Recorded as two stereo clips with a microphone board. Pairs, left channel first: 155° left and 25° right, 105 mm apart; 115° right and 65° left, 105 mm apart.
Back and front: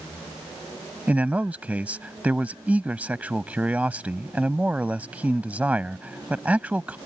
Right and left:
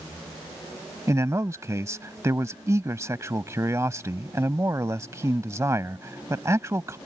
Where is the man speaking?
40° left.